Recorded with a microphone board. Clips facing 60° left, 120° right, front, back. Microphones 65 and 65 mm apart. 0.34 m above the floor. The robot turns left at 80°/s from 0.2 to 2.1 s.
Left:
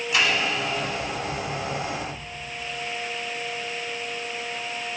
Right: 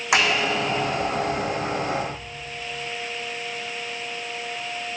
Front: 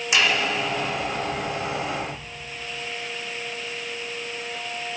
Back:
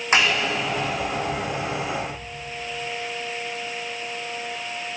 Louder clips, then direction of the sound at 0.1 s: Right 3 dB, back 1 dB; 130° right.